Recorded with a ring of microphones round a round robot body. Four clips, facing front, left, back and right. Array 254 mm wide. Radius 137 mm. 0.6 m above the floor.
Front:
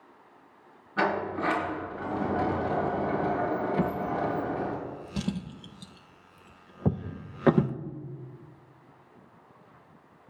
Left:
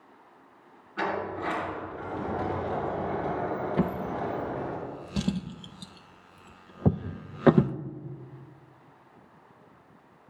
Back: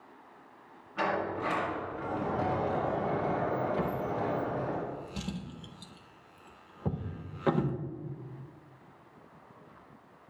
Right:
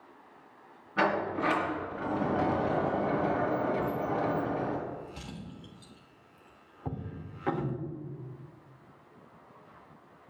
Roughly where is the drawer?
Ahead left.